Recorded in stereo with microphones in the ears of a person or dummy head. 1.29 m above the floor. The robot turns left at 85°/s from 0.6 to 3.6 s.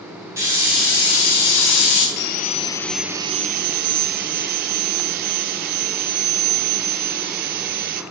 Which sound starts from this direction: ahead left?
Sawing, at 2.2 s.